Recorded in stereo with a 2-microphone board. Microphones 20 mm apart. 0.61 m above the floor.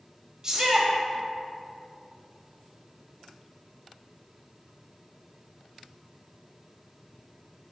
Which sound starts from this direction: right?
A shout, at 0.4 s.